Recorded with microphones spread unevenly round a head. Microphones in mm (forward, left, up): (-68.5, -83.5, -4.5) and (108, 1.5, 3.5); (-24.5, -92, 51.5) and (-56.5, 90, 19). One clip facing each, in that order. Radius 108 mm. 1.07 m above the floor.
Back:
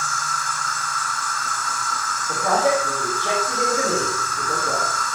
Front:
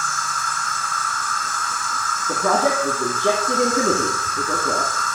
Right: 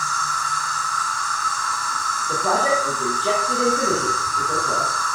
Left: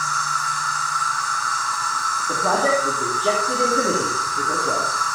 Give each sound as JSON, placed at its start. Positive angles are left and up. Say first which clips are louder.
{"t": 0.0, "sound": "an insect", "louder": "front 1 dB, even", "azimuth_deg": -10, "distance_m": 4.0}
{"t": 2.3, "sound": "a man speaking", "louder": "even, left 1 dB", "azimuth_deg": 25, "distance_m": 2.5}